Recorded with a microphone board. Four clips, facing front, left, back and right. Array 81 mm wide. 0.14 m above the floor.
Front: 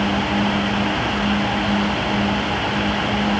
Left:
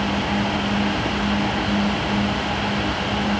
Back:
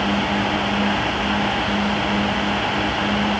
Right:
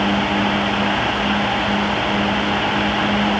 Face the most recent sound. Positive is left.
No sound to turn to.